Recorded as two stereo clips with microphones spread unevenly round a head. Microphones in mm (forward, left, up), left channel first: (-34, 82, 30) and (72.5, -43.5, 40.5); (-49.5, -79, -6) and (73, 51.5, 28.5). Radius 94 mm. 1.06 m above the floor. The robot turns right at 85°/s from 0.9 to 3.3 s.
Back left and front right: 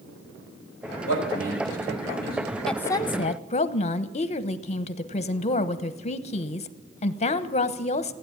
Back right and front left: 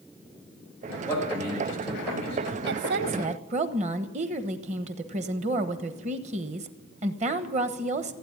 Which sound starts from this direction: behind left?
A man speaking, at 1.1 s.